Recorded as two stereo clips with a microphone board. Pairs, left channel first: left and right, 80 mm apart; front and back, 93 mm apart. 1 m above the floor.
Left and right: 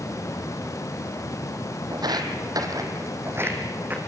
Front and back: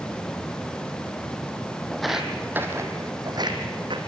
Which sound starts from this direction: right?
Footsteps, at 1.9 s.